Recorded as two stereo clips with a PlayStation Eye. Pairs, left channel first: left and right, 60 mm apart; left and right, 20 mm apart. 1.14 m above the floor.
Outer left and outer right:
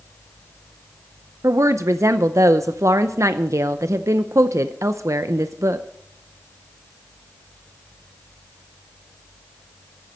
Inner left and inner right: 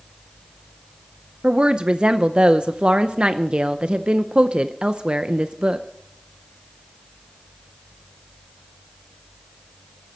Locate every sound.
1.4 s a woman speaking: 55° right (ahead or behind), 0.6 m